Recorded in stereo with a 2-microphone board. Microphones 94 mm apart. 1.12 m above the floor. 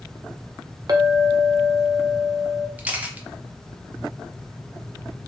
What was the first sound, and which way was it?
A clink, 45° right (ahead or behind).